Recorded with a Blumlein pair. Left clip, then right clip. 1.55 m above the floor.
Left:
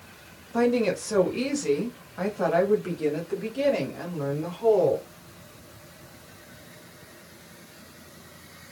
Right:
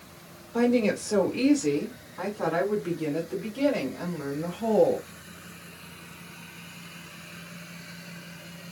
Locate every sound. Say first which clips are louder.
0.5 s a woman speaking: left 1 dB; 15° left, 1.2 m; by 5.0 s 35° left, 3.5 m